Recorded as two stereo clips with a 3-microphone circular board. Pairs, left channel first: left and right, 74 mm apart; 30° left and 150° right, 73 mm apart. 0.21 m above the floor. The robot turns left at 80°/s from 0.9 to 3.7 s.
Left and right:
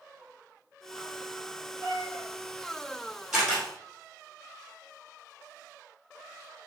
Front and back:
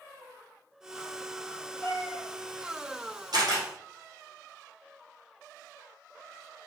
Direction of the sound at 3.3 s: 175° right.